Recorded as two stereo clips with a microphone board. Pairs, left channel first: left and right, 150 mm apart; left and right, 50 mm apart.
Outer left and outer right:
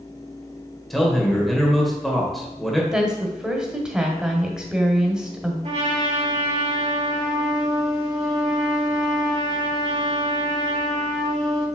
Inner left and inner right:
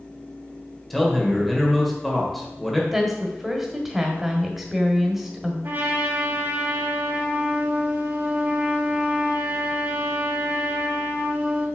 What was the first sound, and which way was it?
A man speaking, centre (ahead or behind).